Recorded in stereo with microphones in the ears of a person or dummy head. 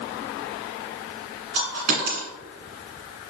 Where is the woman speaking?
No woman speaking in this recording.